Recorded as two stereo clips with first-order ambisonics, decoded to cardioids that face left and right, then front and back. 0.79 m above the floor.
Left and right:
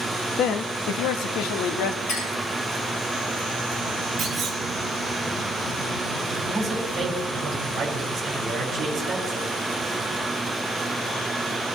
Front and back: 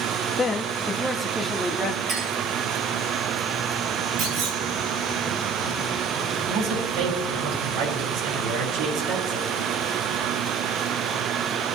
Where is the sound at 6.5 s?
155° right, 5.5 m.